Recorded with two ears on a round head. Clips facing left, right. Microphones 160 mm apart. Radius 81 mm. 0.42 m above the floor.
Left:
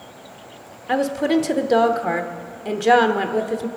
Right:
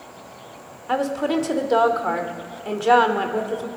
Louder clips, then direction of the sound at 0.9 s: Left 3 dB; 15° left (ahead or behind).